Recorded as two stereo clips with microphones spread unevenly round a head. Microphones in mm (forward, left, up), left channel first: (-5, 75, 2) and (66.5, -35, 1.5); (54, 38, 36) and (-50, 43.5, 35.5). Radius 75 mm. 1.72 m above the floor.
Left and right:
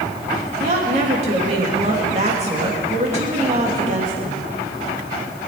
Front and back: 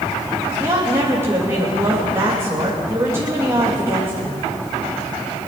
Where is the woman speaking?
110° right, 3 m.